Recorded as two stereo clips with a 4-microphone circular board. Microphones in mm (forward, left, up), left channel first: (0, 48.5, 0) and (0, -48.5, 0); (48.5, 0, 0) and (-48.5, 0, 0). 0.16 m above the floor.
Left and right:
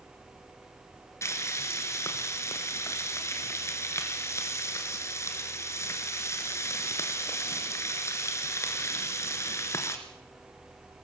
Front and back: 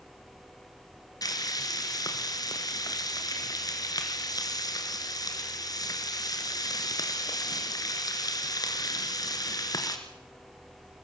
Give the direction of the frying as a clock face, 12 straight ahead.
11 o'clock.